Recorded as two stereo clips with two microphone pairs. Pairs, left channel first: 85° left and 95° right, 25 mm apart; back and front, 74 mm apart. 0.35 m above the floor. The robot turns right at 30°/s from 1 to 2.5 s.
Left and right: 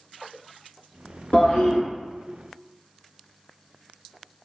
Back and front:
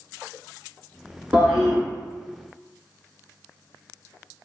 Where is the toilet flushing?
75° left, 1.0 m; by 1.8 s 90° left, 1.0 m.